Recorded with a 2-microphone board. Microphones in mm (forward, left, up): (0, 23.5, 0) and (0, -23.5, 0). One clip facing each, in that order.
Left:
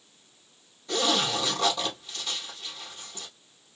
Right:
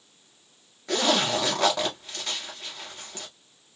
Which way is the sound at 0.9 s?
85° right.